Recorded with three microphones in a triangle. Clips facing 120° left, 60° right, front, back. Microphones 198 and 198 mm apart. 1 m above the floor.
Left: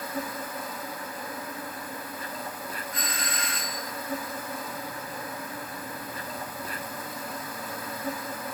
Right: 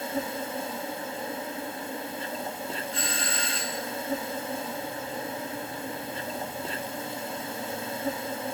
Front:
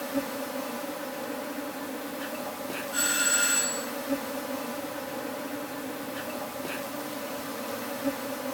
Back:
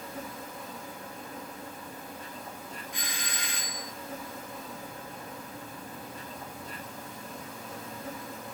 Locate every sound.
0.0 s an insect: straight ahead, 1.1 m
2.9 s a doorbell: 110° right, 1.4 m